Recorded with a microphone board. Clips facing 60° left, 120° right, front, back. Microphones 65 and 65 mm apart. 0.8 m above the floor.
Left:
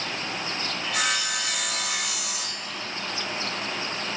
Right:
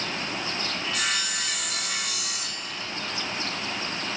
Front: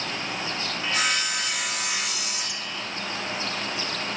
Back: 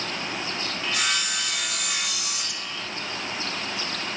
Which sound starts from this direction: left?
Sawing, at 0.8 s.